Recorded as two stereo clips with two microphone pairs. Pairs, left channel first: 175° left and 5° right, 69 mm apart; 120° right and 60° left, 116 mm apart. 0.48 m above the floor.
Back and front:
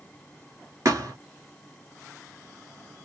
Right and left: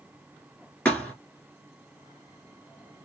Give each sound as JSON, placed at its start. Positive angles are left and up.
{"t": 0.8, "sound": "a thud", "azimuth_deg": -40, "distance_m": 1.4}